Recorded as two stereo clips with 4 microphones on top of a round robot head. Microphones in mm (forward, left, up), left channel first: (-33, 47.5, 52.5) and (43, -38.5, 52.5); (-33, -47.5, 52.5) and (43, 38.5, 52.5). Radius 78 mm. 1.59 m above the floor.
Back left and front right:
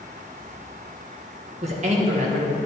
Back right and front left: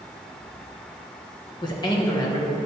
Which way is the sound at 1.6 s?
75° right.